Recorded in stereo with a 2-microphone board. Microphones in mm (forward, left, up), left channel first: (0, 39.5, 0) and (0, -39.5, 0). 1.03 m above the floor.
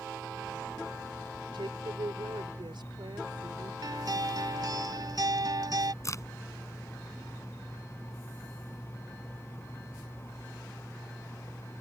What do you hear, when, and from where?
1.5 s a woman speaking: 80° right
3.8 s a guitar: 60° right (ahead or behind)
6.0 s a crack: 40° left (ahead or behind)